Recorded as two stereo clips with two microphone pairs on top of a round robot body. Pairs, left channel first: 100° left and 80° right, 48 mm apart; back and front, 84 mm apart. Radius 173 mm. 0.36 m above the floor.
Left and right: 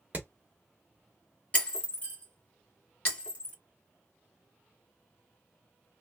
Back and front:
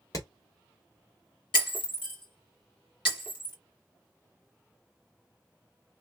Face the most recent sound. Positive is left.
turn(degrees=160)